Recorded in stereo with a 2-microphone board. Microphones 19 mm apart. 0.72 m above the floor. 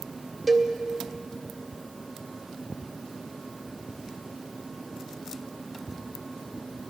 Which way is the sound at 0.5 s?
5° right (ahead or behind).